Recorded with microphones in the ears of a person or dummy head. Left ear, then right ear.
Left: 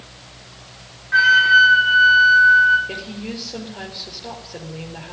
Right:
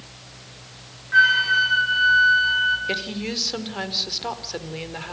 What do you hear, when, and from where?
1.1 s a flute: 15° left (ahead or behind), 3 m
2.9 s a woman speaking: 55° right (ahead or behind), 4 m